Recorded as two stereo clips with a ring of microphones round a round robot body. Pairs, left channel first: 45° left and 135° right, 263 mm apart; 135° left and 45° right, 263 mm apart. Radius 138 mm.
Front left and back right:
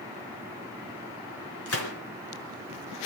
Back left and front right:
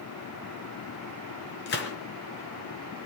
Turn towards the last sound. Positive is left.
turn(degrees=85)